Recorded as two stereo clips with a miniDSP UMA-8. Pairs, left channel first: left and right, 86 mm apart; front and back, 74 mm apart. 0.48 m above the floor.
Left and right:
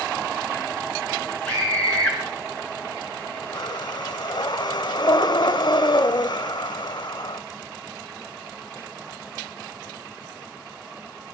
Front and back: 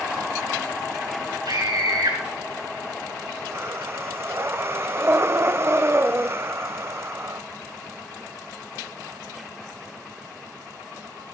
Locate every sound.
1.4 s a scream: 170° left, 6 m
3.5 s breathing: 125° left, 0.5 m